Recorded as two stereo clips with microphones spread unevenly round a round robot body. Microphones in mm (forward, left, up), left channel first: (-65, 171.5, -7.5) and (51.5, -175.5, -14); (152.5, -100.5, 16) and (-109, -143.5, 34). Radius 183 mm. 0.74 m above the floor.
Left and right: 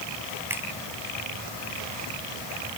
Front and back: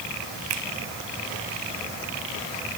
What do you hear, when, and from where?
0.5 s a finger snap: 155° right